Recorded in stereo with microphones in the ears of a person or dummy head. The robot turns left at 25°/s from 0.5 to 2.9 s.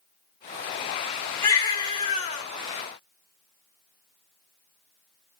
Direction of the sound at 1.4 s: 10° left (ahead or behind).